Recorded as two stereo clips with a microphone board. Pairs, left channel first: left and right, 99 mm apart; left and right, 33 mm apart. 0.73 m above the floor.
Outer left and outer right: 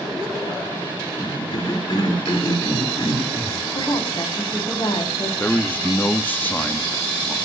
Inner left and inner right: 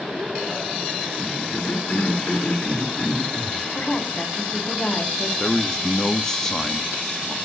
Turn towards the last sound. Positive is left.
turn(degrees=15)  # may be behind; listen again after turning